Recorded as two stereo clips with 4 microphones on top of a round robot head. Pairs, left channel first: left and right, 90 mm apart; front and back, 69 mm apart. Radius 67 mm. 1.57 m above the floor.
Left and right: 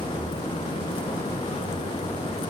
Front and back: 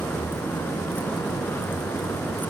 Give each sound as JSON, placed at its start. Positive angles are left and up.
{"t": 0.0, "sound": "a vehicle", "azimuth_deg": 65}